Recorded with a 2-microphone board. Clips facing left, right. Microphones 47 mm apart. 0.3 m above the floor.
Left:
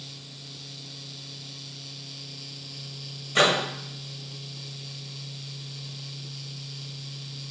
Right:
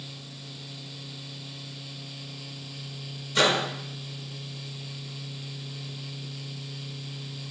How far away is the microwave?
About 0.8 m.